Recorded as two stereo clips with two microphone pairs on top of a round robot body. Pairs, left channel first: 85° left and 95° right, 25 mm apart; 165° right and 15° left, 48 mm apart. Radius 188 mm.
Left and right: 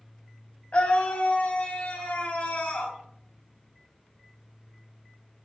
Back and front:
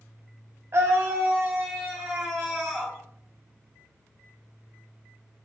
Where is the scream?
45° left, 1.3 m; by 3.0 s 115° left, 2.0 m.